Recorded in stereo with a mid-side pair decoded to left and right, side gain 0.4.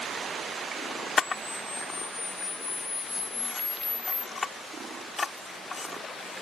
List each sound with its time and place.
1.2 s a camera shutter: 35° left